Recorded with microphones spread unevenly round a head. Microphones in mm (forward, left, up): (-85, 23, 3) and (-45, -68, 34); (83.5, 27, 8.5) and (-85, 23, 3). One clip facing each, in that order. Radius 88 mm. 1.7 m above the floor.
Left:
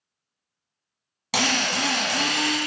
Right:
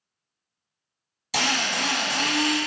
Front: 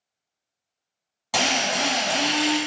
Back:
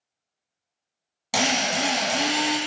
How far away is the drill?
About 1.3 m.